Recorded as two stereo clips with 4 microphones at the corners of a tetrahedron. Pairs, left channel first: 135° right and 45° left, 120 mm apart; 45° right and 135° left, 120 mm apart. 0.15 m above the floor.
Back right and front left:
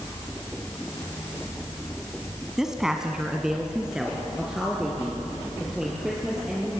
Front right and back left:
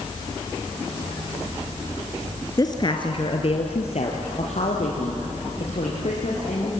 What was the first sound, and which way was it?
A woman speaking, 40° right.